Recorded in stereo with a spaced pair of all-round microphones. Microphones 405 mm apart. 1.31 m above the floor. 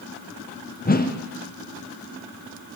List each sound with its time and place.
0.8 s a whoosh: 25° left (ahead or behind), 0.5 m